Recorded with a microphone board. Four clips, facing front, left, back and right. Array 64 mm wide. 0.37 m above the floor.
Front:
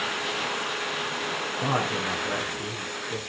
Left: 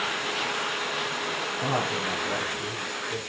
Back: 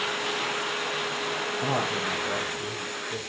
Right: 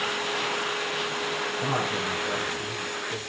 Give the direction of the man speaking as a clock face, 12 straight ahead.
12 o'clock.